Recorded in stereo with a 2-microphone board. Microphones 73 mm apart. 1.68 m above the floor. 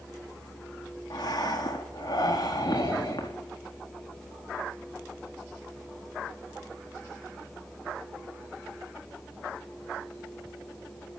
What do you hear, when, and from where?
1.1 s breathing: 65° left (ahead or behind), 4 m